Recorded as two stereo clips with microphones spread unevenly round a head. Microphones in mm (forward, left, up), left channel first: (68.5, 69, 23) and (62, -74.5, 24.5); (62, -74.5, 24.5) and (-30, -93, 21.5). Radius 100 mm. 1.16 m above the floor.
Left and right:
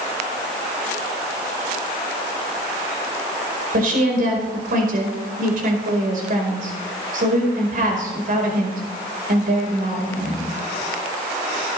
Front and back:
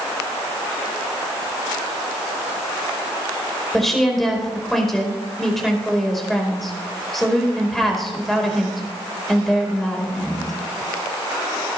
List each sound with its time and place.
3.7 s a woman speaking: 75° right, 5 m